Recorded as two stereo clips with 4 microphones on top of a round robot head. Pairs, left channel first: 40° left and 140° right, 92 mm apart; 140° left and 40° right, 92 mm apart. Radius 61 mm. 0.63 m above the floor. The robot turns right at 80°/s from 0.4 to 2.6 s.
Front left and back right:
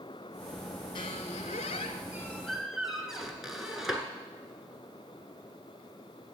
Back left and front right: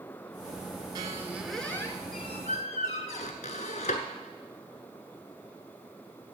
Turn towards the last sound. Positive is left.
turn(degrees=135)